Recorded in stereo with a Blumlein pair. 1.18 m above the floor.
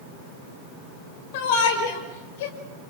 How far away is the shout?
About 6 m.